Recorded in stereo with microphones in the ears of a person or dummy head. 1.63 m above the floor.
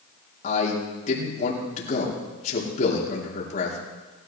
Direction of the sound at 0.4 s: 50° left (ahead or behind).